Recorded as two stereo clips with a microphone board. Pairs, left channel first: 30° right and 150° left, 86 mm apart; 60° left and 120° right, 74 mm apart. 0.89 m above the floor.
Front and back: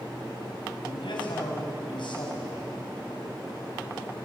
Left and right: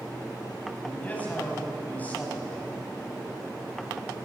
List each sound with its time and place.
0.8 s a man speaking: 10° right, 6 m